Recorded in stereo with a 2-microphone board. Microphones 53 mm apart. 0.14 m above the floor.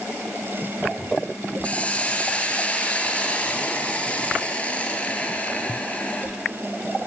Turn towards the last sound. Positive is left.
turn(degrees=25)  # may be behind; listen again after turning